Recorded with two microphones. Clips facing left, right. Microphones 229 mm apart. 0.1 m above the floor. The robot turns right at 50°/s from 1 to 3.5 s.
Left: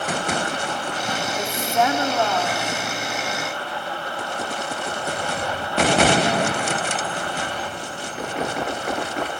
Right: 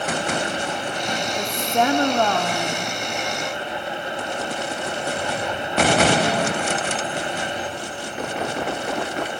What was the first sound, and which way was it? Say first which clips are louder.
A woman speaking: even; 170° right.